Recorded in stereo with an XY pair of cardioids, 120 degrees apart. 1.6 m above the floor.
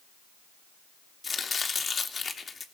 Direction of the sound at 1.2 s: 25° left.